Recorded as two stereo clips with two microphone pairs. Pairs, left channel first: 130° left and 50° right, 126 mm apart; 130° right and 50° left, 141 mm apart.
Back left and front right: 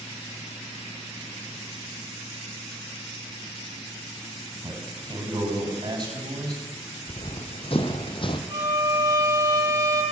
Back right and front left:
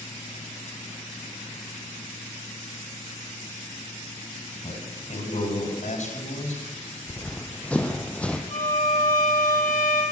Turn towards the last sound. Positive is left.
turn(degrees=-105)